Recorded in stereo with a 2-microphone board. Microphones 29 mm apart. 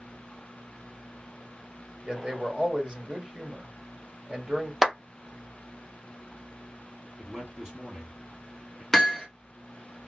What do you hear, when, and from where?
2.0 s a man speaking: 30° right (ahead or behind), 1.5 m
4.8 s a clap: 10° right (ahead or behind), 1.3 m
7.2 s a man speaking: 20° right (ahead or behind), 2.5 m
8.9 s hammering: 10° left (ahead or behind), 1.2 m